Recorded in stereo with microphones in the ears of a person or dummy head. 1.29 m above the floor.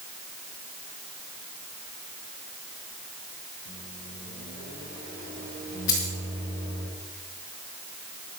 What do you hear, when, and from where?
3.6 s a microwave: 60° right (ahead or behind), 7.5 m
5.9 s a dropped coin: 20° left (ahead or behind), 4.5 m